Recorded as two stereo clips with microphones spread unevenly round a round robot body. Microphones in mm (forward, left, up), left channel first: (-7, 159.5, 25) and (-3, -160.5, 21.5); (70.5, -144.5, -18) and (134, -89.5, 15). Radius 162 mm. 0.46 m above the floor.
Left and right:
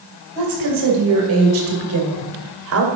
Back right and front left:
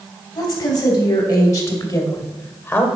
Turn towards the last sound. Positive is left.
turn(degrees=-115)